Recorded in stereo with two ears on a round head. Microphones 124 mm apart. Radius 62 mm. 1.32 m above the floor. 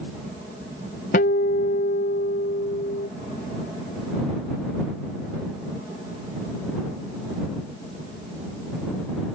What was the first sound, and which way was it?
A guitar, 60° left (ahead or behind).